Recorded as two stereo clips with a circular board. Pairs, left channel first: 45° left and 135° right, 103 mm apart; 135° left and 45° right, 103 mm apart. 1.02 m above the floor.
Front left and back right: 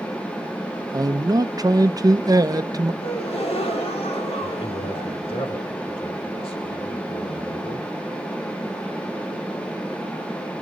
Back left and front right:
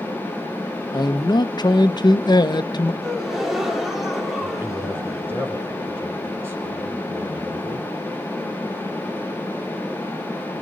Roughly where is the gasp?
Ahead left.